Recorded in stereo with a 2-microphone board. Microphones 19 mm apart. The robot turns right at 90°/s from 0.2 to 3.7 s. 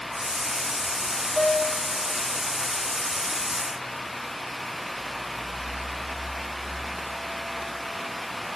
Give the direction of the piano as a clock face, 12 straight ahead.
10 o'clock.